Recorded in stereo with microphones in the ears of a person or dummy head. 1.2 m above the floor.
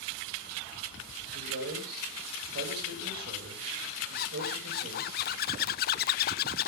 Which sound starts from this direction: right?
A man speaking, at 1.3 s.